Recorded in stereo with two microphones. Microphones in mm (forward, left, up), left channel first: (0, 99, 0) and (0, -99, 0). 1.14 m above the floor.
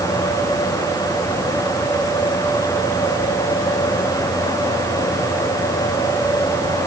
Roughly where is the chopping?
No chopping in this recording.